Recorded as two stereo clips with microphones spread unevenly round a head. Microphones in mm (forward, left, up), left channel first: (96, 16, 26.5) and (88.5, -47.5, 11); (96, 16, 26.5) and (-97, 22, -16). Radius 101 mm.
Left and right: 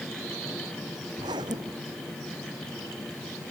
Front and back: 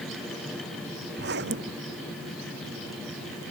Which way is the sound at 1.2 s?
140° right.